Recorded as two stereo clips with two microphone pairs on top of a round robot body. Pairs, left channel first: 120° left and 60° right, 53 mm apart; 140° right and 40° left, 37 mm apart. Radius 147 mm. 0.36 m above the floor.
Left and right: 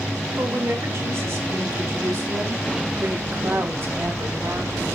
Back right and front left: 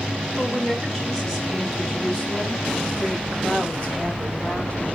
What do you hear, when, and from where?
0.4 s a woman speaking: 60° right, 5 m; by 4.9 s 95° right, 2.5 m